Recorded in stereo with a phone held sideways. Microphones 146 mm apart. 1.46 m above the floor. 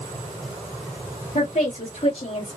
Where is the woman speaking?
55° left (ahead or behind), 3 m; by 2.6 s 45° left (ahead or behind), 3 m.